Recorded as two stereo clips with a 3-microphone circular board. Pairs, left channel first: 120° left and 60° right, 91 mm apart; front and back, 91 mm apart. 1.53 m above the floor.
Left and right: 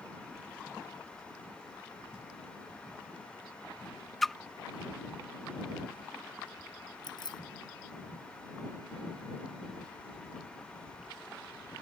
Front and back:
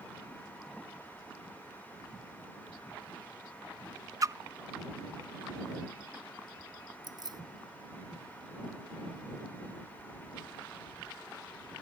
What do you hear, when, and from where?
4.2 s a splash: 155° right
7.0 s keys jangling: 150° left